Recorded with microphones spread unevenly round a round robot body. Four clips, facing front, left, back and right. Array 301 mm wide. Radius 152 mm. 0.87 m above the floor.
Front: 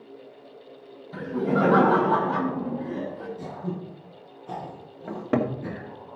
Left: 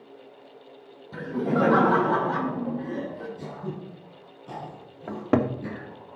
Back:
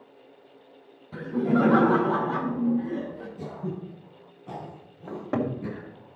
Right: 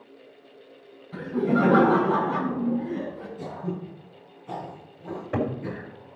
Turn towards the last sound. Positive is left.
turn(degrees=65)